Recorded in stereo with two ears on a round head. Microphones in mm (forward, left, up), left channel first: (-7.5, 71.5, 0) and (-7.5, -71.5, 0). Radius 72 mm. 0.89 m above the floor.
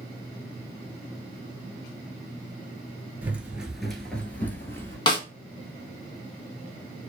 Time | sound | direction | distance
3.2 | running footsteps | 10° right (ahead or behind) | 0.9 m
5.1 | a snare drum | 30° left (ahead or behind) | 0.9 m